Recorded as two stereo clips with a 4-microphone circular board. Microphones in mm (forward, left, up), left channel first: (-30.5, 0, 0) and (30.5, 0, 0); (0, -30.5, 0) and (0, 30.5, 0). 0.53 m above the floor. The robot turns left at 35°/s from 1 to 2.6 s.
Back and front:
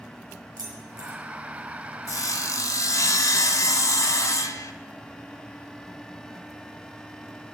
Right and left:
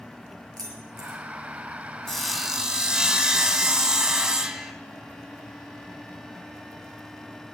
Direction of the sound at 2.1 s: 170° right.